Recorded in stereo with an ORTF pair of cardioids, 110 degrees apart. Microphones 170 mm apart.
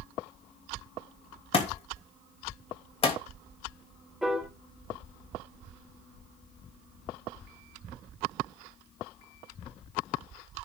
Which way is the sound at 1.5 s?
35° left.